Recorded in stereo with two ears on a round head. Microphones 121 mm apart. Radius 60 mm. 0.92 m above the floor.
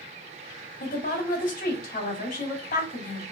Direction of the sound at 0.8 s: 60° left (ahead or behind).